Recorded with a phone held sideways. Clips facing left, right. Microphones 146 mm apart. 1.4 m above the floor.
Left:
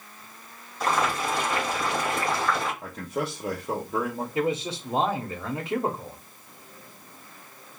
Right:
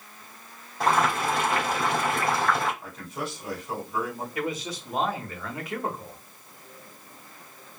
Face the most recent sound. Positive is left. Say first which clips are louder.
# left 5 dB
turn(degrees=25)  # may be behind; listen again after turning